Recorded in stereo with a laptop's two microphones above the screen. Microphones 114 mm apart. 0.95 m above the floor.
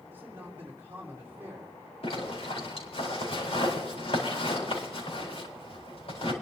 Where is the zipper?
55° left (ahead or behind), 4.5 m.